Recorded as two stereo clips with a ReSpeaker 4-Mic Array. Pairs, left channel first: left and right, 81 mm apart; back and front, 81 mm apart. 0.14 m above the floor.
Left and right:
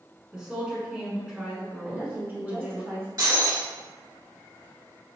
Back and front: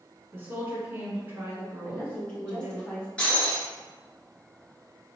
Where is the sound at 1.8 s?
120° right, 1.4 m.